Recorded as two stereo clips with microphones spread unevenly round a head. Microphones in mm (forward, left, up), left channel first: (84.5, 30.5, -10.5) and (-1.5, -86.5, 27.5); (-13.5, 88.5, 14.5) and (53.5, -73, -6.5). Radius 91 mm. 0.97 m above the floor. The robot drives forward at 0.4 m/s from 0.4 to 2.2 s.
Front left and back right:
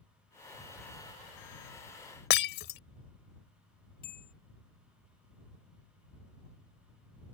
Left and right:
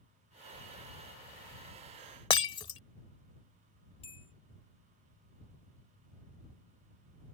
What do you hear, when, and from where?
2.3 s breaking glass: 50° left
4.0 s a bell: 55° left